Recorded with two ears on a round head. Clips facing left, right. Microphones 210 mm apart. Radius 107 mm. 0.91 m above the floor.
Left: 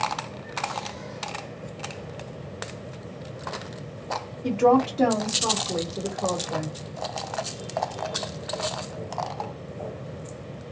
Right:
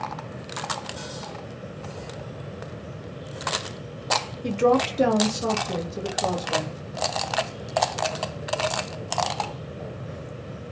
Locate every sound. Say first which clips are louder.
4.4 s a woman speaking: left 1 dB; 20° right (ahead or behind), 0.8 m; by 6.8 s 5° right (ahead or behind), 1.3 m